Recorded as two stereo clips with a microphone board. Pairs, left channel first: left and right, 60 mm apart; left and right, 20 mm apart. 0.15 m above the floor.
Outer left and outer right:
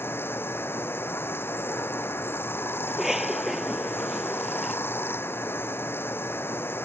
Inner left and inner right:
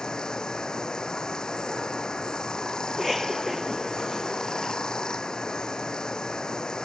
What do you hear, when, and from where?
0.0 s running water: 40° left (ahead or behind)
2.9 s a cough: 5° right (ahead or behind)